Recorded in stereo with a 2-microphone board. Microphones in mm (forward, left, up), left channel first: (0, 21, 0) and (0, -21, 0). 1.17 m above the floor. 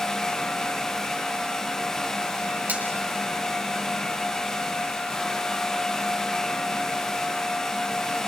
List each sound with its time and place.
2.7 s a finger snap: 50° right (ahead or behind), 7 m